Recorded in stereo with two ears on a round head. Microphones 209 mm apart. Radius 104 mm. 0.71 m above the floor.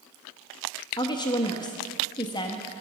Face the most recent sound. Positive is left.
turn(degrees=20)  # may be behind; listen again after turning